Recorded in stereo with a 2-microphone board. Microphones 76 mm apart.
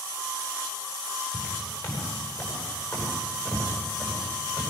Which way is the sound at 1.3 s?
55° left (ahead or behind).